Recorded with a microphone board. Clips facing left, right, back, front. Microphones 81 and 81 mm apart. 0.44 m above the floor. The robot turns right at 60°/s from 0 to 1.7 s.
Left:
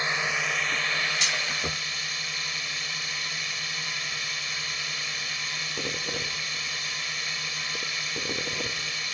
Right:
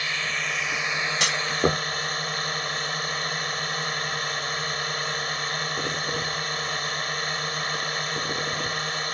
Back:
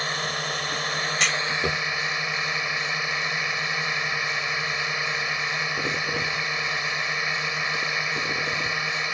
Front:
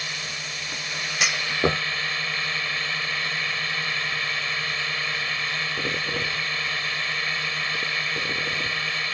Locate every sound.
0.0 s a drone: 150° left; by 9.1 s 110° right
1.2 s a clunk: 85° right; by 1.8 s 55° right